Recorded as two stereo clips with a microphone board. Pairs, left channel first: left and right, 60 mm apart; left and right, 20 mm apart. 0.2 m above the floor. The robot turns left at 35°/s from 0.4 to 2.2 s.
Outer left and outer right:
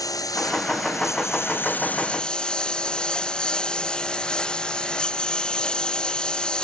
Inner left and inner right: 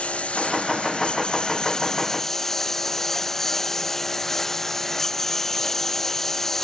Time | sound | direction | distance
0.0 | a lawn mower | 80° left | ?